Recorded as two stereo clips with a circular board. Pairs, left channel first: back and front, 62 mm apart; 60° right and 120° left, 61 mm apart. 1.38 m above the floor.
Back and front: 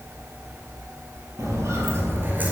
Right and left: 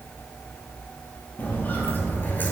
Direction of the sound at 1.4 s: 5° right.